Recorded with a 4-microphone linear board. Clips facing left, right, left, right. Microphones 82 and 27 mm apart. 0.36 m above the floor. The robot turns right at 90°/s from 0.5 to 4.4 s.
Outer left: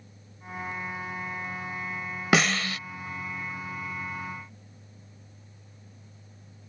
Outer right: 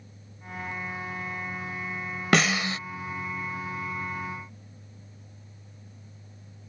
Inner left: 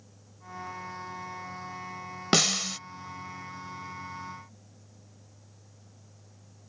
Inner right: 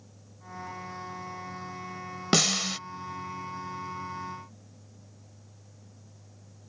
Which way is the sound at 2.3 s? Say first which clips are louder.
Outer right 1 dB, even; 175° left.